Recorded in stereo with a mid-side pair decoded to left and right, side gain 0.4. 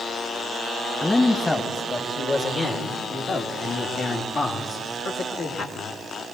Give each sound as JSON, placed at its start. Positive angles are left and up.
{"t": 1.0, "sound": "a man speaking", "azimuth_deg": 20, "distance_m": 1.9}